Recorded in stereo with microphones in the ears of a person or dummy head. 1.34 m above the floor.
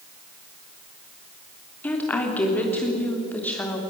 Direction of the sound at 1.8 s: 10° left (ahead or behind).